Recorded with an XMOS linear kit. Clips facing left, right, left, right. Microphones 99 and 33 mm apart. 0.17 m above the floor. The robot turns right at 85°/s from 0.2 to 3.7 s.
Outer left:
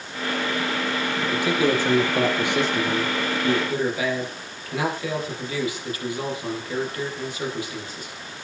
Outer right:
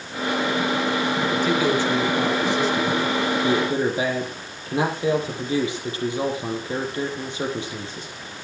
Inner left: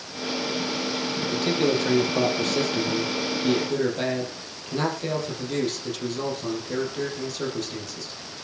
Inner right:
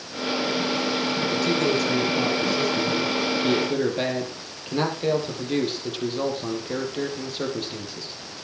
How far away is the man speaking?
About 4.5 m.